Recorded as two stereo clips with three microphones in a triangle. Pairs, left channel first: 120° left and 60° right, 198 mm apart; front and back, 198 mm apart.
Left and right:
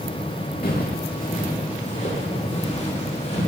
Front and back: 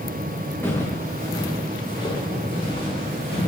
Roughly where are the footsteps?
Left.